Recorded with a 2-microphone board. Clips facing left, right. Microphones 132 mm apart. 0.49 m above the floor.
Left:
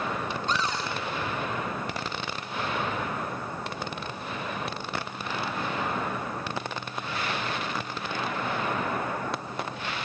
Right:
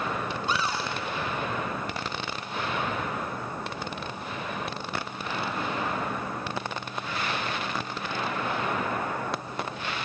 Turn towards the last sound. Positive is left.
turn(degrees=-10)  # may be behind; listen again after turning